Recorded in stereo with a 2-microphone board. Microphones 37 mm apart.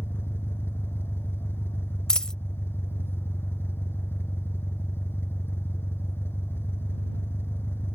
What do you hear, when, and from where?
0.0 s an engine running: 80° left
2.1 s a dropped coin: 20° left (ahead or behind)